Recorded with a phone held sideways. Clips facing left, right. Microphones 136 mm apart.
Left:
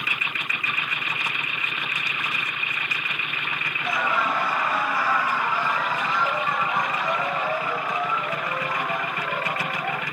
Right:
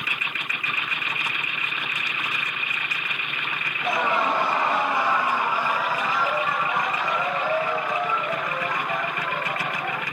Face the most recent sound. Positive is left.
turn(degrees=5)  # may be behind; listen again after turning